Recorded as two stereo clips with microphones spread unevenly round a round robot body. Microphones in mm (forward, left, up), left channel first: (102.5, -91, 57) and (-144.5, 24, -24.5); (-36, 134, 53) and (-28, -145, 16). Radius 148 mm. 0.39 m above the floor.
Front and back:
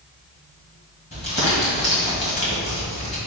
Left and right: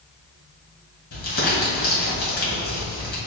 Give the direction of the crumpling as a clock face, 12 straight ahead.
10 o'clock.